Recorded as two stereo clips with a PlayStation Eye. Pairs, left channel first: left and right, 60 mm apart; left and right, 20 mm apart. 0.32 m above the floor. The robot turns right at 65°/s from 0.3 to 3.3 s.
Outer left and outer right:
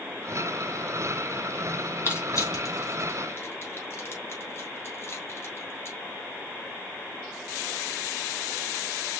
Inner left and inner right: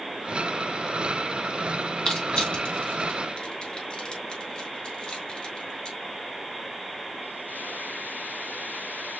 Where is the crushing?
40° left (ahead or behind), 3 m.